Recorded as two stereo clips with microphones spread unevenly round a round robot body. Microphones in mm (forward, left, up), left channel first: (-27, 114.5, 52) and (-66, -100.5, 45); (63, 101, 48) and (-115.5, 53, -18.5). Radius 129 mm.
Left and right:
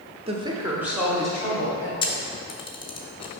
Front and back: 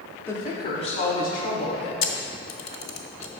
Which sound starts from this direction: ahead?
A camera shutter, at 2.0 s.